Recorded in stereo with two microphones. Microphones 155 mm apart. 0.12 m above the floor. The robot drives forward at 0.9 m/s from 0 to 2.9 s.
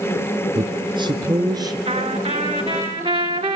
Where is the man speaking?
30° right (ahead or behind), 1.6 m; by 1.8 s 25° right (ahead or behind), 2 m.